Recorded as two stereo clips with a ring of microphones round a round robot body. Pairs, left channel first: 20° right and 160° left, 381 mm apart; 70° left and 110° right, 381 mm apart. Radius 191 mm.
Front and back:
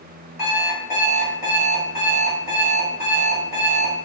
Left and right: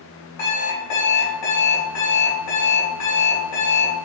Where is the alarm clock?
50° left, 1.5 m.